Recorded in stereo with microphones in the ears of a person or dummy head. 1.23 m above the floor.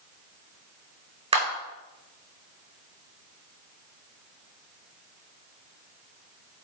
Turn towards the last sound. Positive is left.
turn(degrees=-30)  # may be behind; listen again after turning